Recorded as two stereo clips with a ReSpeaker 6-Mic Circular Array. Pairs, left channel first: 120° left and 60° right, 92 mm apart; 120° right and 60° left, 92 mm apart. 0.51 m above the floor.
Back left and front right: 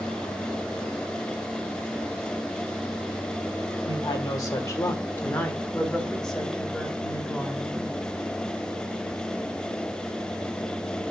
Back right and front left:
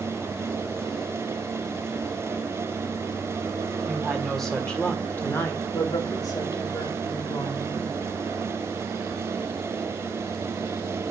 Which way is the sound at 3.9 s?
140° left.